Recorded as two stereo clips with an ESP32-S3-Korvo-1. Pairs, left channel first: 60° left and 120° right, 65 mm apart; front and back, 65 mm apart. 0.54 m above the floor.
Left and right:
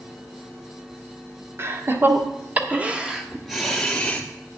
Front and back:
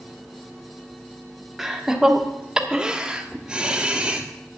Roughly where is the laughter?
Right.